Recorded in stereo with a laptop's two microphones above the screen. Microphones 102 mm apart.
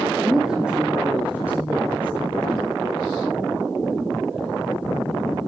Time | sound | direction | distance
0.1 | a woman speaking | 5° right (ahead or behind) | 2 m